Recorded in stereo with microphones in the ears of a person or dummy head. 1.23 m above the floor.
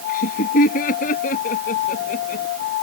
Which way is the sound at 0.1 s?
55° left (ahead or behind).